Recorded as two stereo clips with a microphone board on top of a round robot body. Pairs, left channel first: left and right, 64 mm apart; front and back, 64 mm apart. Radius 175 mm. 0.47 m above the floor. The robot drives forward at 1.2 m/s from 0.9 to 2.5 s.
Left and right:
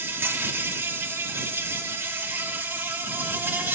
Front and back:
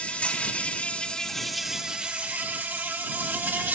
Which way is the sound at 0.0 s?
60° right.